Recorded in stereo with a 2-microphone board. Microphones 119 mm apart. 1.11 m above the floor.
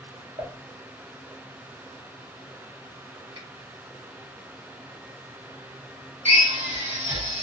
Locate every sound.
0.4 s dishes clattering: 70° right (ahead or behind), 0.8 m
3.4 s a finger snap: 55° right (ahead or behind), 1.4 m
6.2 s a drill: 80° right, 1.8 m